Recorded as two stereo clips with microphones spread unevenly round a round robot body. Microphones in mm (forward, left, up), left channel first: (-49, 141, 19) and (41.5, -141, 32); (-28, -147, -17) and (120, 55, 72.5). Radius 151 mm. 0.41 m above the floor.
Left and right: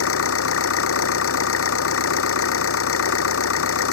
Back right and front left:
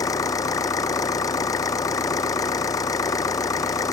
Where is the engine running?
155° left.